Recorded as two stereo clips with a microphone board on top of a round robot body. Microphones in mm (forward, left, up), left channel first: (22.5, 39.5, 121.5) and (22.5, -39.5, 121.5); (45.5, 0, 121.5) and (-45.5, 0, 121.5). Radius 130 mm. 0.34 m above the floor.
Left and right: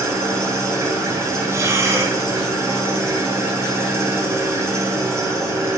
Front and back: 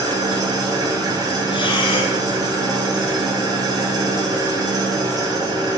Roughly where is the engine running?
Behind right.